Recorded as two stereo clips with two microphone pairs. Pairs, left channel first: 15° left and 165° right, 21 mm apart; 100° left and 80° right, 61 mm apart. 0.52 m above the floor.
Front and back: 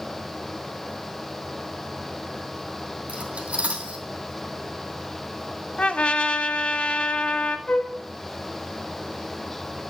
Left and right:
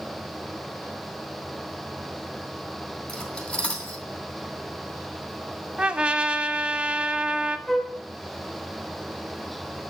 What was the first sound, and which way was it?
Cutlery clinking, 170° left.